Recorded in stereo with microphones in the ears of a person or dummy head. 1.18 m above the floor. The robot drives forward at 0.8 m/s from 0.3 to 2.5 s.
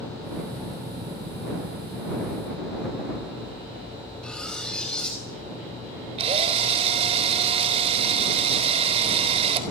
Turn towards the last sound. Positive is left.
turn(degrees=-35)  # may be behind; listen again after turning